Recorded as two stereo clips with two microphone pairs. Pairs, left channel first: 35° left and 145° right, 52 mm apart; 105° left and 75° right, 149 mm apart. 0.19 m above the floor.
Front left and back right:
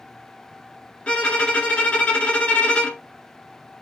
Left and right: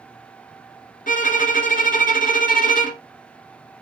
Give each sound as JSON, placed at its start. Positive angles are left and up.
{"t": 1.1, "sound": "a violin", "azimuth_deg": 100, "distance_m": 1.0}